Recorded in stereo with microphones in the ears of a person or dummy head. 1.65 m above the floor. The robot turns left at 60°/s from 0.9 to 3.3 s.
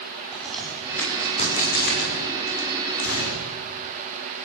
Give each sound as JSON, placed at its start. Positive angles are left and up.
{"t": 0.3, "sound": "a crack", "side_deg": 0, "distance_m": 6.0}
{"t": 3.0, "sound": "a gunshot", "side_deg": 80, "distance_m": 6.5}